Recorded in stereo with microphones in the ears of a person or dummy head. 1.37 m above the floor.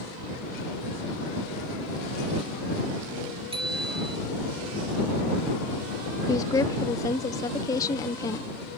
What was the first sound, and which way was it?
A bicycle bell, 25° right (ahead or behind).